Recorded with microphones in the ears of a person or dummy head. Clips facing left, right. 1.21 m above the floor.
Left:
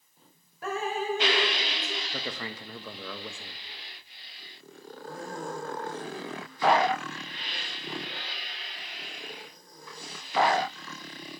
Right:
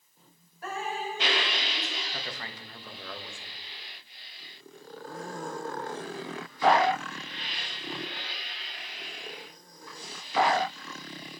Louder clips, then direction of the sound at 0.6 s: Left 4 dB; 65° left (ahead or behind).